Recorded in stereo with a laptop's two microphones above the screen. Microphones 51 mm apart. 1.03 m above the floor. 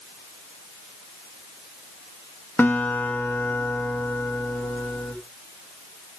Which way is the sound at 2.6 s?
35° left (ahead or behind).